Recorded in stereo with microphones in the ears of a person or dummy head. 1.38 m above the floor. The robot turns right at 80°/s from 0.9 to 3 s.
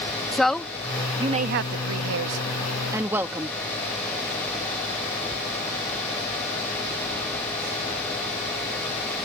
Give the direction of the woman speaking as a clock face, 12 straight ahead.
6 o'clock.